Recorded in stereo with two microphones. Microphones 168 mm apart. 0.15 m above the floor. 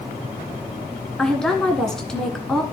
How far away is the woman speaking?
About 1.8 m.